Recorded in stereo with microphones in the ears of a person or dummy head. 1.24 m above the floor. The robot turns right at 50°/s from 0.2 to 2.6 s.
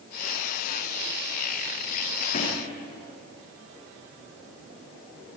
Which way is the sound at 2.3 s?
45° left (ahead or behind).